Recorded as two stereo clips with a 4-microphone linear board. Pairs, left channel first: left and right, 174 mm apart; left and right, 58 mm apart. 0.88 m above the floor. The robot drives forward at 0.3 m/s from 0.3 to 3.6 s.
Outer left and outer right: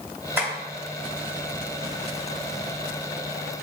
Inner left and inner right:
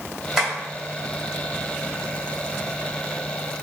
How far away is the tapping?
About 1.7 m.